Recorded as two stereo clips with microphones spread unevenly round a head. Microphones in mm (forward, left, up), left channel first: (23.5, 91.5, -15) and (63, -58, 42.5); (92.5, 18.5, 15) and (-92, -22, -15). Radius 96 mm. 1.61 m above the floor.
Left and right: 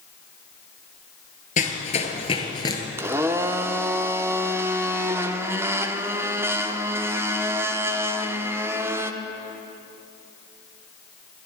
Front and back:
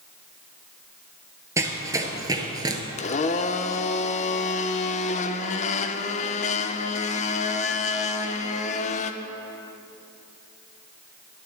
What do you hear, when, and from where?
1.6 s running footsteps: 115° left, 1.6 m; by 2.8 s 150° right, 1.6 m
3.0 s a blender: 25° right, 0.7 m